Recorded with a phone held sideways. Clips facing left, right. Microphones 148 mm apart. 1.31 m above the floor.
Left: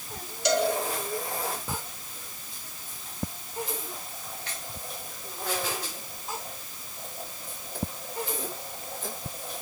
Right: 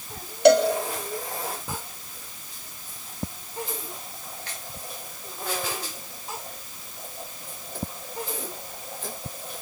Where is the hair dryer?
I don't hear a hair dryer.